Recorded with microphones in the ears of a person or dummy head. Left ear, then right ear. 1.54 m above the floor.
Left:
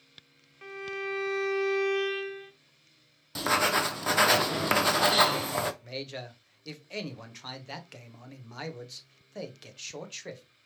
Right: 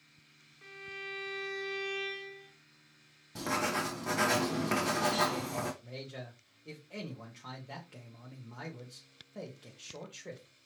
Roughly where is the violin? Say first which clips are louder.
Left 8 dB; left.